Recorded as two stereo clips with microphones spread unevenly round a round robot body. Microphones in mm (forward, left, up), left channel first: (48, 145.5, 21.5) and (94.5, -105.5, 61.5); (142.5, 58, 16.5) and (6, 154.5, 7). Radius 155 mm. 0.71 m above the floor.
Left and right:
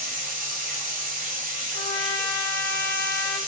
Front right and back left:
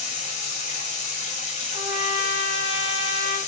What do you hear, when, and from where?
0.0 s running water: 25° right, 0.9 m
1.7 s a trumpet: 65° left, 1.9 m